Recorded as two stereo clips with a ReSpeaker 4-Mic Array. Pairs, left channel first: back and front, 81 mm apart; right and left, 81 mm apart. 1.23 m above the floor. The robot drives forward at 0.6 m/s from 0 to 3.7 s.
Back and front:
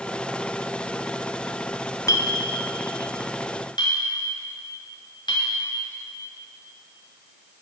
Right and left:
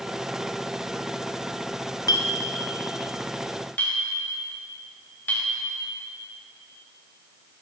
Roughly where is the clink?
Behind right.